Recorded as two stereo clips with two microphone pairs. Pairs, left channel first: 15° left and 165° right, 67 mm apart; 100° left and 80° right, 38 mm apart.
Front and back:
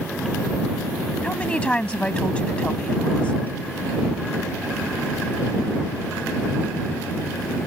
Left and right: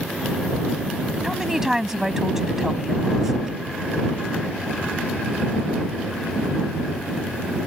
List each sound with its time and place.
1.2 s a woman speaking: 20° right